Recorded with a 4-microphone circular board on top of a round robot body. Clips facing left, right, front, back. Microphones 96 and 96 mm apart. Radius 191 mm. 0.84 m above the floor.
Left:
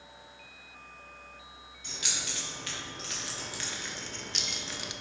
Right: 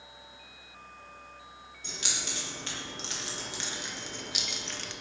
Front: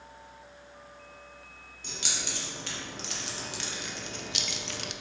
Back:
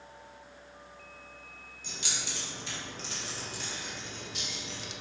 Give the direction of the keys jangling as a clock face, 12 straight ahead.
1 o'clock.